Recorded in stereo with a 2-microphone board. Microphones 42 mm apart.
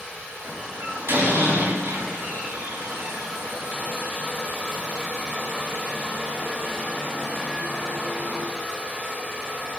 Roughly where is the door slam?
Right.